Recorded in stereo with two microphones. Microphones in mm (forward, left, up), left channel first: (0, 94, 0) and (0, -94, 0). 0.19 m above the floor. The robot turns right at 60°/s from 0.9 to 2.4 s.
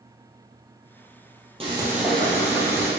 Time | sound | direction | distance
1.6 | frying | 30° right | 2.0 m